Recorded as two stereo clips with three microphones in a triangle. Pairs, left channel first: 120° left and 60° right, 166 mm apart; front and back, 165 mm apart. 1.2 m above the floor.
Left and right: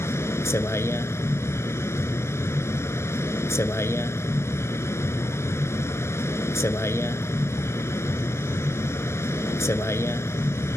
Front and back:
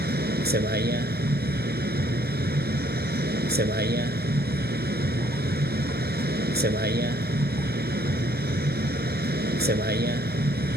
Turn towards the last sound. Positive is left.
turn(degrees=-165)